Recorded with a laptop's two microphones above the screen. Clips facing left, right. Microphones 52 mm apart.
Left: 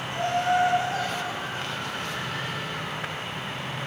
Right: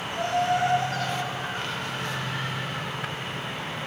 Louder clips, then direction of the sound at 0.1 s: Left 1 dB; 45° left (ahead or behind).